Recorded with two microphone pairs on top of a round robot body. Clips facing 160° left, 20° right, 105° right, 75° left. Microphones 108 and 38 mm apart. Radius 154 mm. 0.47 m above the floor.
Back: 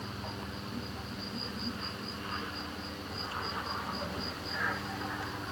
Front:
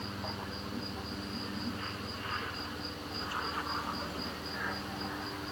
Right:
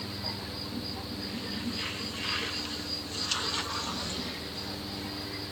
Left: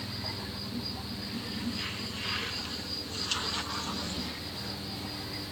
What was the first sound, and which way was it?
Only background noise.